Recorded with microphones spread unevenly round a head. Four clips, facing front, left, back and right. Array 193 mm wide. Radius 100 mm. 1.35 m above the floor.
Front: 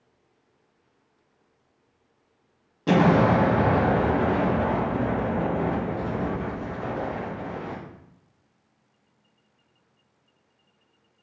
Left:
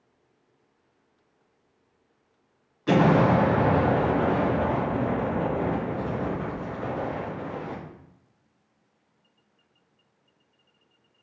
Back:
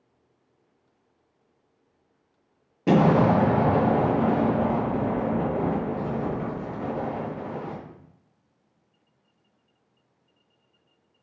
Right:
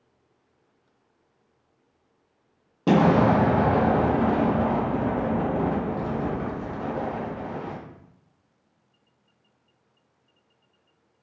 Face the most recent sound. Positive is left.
turn(degrees=-105)